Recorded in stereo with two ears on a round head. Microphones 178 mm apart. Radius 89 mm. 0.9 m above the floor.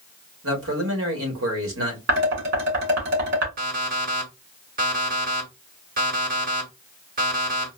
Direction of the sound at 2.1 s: 50° right (ahead or behind).